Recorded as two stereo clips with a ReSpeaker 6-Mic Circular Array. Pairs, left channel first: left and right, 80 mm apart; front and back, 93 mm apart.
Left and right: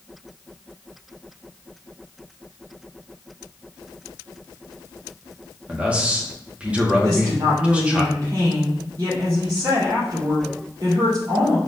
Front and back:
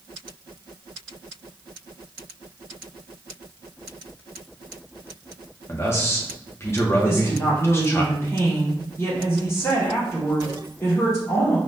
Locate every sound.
5.7 s a man speaking: 30° right, 0.9 m
7.0 s a woman speaking: 55° right, 2.5 m